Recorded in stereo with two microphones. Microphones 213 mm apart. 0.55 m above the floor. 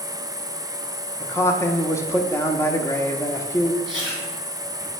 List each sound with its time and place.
0.0 s an insect: 50° left (ahead or behind), 3 m
1.2 s a man speaking: 15° left (ahead or behind), 0.9 m
3.9 s chewing: 20° right (ahead or behind), 3 m